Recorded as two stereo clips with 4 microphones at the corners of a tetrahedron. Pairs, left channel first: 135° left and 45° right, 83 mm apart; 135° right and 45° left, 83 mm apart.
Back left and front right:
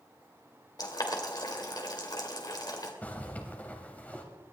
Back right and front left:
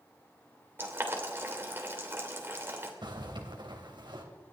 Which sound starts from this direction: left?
Boiling, at 0.8 s.